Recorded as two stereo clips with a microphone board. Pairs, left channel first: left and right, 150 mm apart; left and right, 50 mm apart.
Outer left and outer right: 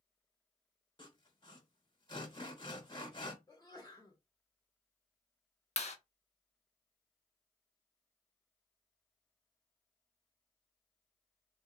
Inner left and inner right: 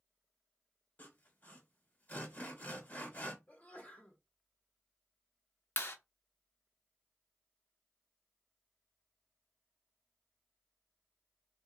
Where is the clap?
45° left (ahead or behind), 0.7 m.